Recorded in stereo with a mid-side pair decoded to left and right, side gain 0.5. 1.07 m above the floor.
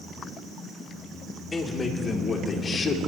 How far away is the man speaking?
About 3.5 m.